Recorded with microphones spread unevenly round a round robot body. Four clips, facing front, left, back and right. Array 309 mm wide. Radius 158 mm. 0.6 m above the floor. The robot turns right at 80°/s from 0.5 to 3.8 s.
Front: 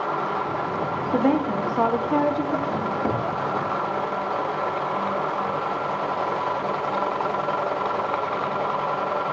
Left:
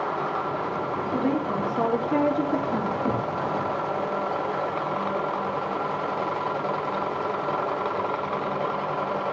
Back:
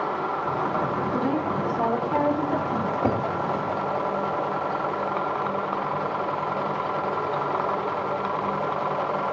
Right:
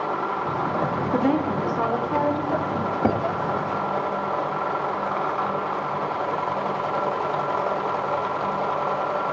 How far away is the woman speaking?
About 1.2 m.